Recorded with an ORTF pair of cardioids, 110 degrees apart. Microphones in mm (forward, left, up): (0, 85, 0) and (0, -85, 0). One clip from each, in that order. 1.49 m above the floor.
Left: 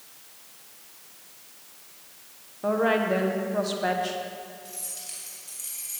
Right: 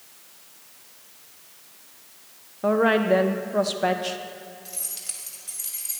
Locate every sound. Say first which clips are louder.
2.6 s a woman speaking: right 3 dB; 25° right, 0.9 m
4.7 s keys jangling: right 3 dB; 30° right, 2.5 m